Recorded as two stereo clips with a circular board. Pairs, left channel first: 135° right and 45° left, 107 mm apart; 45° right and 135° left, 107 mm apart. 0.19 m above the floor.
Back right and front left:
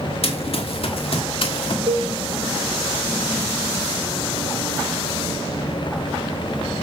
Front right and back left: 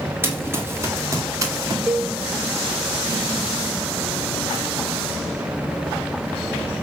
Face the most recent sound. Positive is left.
turn(degrees=50)